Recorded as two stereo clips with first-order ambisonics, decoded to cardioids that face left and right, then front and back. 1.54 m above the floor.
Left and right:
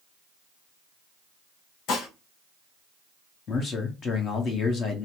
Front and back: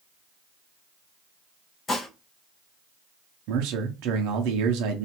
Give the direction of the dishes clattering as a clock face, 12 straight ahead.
10 o'clock.